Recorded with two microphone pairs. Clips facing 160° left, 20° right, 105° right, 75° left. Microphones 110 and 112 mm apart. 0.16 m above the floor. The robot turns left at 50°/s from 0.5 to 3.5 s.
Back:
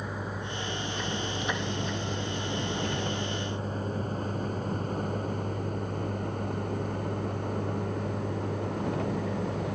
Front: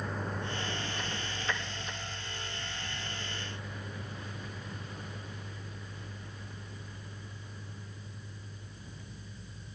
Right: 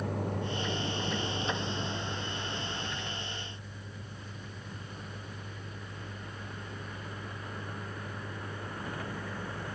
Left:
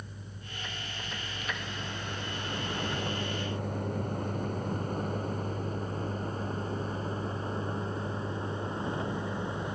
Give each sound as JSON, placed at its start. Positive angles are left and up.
{"t": 0.0, "sound": "a vehicle", "azimuth_deg": -120}